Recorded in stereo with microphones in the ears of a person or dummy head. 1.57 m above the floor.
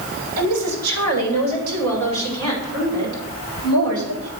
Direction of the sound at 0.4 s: 85° right.